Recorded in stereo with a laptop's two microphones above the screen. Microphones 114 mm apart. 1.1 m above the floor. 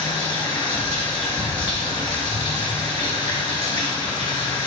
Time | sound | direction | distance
0.0 | running water | 45° left (ahead or behind) | 3 m